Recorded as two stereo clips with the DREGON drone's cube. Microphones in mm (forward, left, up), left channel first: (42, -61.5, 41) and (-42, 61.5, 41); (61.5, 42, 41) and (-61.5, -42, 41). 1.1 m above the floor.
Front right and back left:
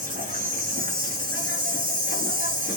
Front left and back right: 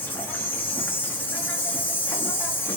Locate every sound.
0.0 s an insect: 110° left, 0.9 m